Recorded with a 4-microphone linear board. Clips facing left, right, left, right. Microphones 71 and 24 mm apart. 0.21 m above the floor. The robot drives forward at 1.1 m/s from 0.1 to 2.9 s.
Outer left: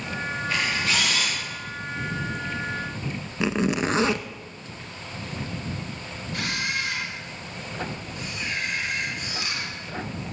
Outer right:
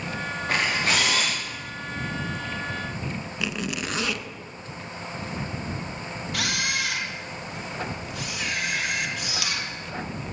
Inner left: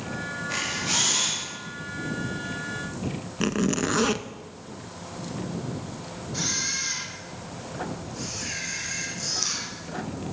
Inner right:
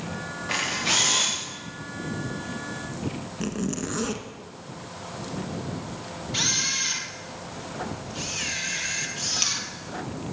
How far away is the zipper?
About 0.6 m.